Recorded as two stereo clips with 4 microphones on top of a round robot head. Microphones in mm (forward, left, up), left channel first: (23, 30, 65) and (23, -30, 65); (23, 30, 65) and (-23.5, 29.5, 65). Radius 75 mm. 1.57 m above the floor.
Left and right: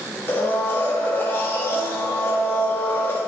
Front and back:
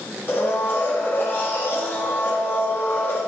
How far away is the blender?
About 1.3 m.